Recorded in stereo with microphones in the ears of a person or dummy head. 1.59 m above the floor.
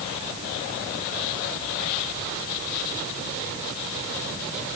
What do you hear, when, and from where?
Only background noise.